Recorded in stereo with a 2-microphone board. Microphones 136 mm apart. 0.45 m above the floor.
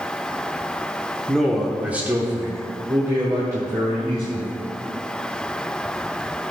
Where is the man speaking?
5° left (ahead or behind), 1.2 m; by 4.6 s 25° right (ahead or behind), 3 m.